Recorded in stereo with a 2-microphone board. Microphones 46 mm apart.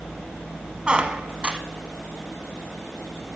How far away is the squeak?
About 0.9 m.